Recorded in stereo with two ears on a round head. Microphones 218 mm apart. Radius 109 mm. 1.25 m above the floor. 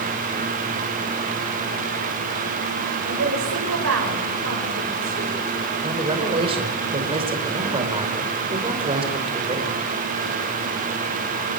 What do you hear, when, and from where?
3.1 s a woman speaking: 55° right (ahead or behind), 6 m
5.8 s a man speaking: 25° right (ahead or behind), 5 m